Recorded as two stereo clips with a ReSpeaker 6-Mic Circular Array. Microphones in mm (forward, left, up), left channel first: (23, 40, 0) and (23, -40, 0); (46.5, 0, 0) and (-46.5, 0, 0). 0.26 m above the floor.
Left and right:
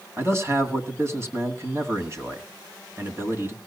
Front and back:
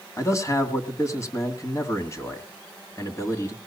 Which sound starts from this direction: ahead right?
A man speaking, at 0.2 s.